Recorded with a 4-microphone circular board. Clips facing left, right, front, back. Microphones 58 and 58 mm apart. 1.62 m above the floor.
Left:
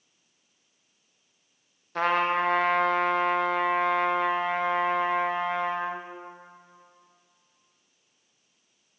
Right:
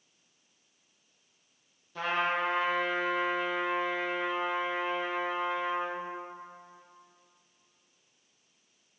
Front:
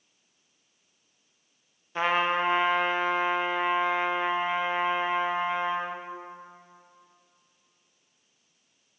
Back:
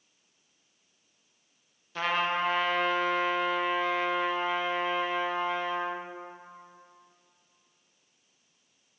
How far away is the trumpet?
About 0.9 m.